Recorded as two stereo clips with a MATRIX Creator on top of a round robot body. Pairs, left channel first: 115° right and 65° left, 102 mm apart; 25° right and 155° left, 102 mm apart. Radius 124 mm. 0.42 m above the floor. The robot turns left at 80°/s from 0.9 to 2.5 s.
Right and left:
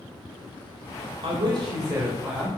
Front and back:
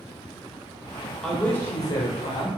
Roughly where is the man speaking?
Left.